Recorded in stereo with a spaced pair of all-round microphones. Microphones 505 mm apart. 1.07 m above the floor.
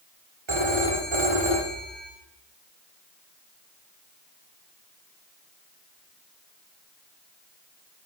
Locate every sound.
0.5 s a phone ringing: 65° right (ahead or behind), 2 m